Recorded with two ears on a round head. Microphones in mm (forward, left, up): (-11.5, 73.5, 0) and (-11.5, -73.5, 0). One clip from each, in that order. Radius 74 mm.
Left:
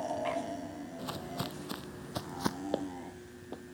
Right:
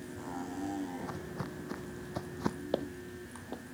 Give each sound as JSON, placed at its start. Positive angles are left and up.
{"t": 1.0, "sound": "footsteps", "side_deg": 70}
{"t": 2.7, "sound": "footsteps", "side_deg": 0}